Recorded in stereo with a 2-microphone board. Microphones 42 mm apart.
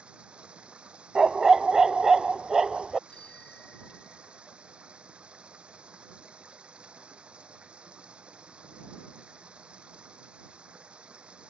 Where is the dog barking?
10° right (ahead or behind).